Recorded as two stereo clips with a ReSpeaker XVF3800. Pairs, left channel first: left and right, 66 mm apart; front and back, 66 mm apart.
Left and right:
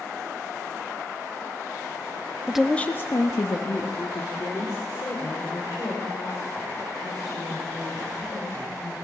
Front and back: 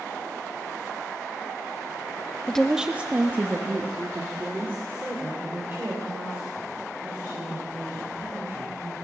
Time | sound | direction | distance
2.5 | a woman speaking | 45° right | 0.6 m